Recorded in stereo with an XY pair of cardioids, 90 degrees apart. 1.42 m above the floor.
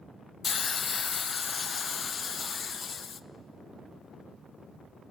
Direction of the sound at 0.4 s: 45° left.